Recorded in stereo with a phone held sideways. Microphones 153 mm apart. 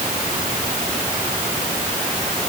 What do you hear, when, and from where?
Only background noise.